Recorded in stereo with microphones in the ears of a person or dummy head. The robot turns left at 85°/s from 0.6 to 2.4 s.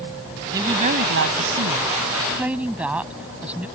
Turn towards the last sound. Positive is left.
turn(degrees=-175)